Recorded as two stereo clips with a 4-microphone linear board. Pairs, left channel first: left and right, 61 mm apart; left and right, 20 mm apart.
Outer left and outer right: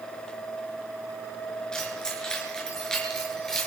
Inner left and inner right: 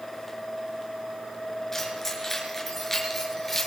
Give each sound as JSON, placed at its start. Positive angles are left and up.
{"t": 1.7, "sound": "keys jangling", "side_deg": 15, "distance_m": 4.5}